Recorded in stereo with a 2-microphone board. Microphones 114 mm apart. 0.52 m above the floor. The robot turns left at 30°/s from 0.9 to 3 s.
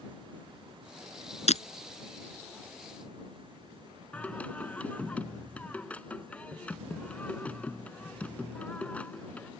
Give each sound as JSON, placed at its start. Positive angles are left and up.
{"t": 1.5, "sound": "breaking glass", "side_deg": 75}
{"t": 4.1, "sound": "singing", "side_deg": 10}